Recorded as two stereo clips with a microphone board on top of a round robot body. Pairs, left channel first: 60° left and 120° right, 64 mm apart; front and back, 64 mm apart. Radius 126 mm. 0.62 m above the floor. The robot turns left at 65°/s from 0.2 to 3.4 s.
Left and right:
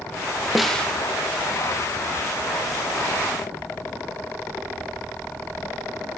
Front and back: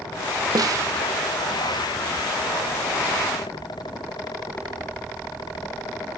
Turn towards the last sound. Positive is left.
turn(degrees=-30)